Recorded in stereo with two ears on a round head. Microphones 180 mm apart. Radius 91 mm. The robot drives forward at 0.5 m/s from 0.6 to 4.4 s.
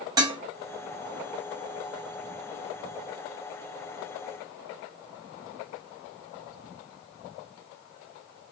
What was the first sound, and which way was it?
Dishes clattering, 20° right (ahead or behind).